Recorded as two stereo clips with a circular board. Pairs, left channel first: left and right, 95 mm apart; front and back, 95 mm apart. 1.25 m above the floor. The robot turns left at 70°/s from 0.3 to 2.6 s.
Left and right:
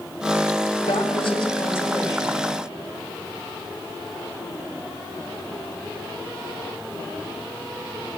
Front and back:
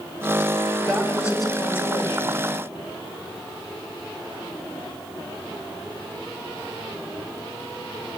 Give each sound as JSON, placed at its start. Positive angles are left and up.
{"t": 0.8, "sound": "a woman speaking", "azimuth_deg": 90, "distance_m": 5.5}